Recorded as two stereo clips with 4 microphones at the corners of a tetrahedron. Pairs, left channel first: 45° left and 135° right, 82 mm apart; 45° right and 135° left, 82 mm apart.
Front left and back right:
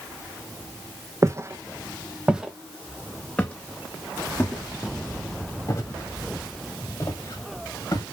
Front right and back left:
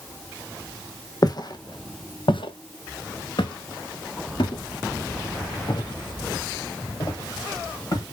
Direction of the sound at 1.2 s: 85° right.